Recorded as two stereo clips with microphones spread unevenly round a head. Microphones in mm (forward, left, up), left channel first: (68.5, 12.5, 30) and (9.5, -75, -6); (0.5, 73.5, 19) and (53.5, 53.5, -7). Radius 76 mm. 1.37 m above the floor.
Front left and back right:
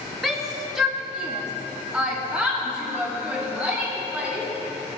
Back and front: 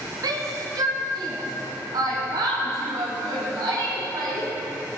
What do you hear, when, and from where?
0.2 s a shout: 35° right, 2.5 m; by 4.5 s 45° right, 5 m